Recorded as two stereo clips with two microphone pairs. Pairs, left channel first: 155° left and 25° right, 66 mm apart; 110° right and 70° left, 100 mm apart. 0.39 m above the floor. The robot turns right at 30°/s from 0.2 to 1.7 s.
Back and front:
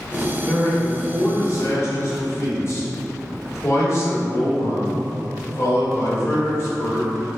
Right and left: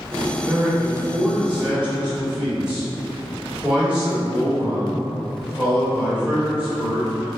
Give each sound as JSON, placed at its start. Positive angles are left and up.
{"t": 0.5, "sound": "a man speaking", "azimuth_deg": 105, "distance_m": 1.7}